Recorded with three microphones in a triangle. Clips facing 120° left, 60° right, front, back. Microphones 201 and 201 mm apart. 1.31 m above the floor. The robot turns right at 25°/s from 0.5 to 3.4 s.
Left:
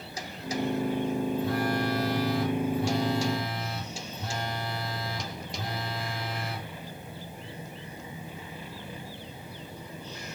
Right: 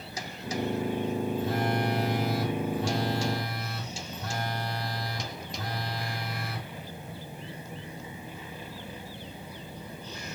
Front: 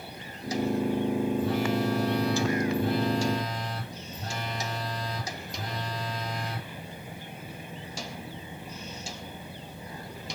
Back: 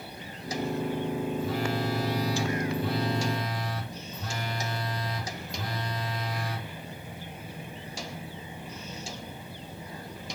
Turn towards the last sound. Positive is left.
turn(degrees=50)